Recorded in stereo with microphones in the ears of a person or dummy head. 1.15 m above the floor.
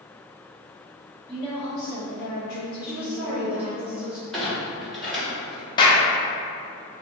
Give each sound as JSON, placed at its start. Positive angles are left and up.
{"t": 1.3, "sound": "a woman speaking", "side_deg": 10, "distance_m": 0.9}
{"t": 2.8, "sound": "a woman speaking", "side_deg": -5, "distance_m": 1.0}
{"t": 4.3, "sound": "a clunk", "side_deg": 0, "distance_m": 1.2}
{"t": 5.8, "sound": "a clap", "side_deg": 25, "distance_m": 0.5}